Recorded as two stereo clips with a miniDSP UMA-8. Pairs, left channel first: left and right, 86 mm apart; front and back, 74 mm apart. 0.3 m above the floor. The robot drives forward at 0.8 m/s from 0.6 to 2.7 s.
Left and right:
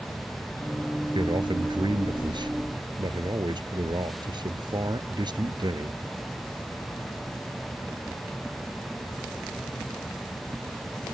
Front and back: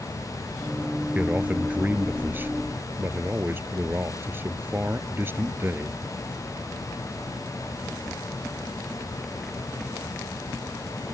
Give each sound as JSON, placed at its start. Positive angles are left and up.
{"t": 1.1, "sound": "a man speaking", "azimuth_deg": -110}